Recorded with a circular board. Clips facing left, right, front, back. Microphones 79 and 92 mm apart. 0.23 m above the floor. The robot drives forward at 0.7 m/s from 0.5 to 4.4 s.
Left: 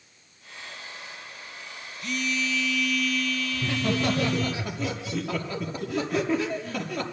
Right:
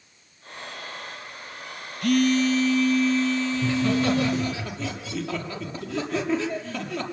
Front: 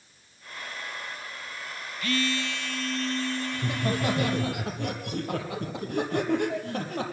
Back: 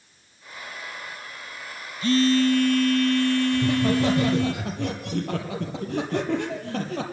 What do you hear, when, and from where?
2.0 s a phone buzzing: 115° right, 0.7 m; by 4.5 s 160° right, 2 m
3.5 s laughter: 170° left, 6.5 m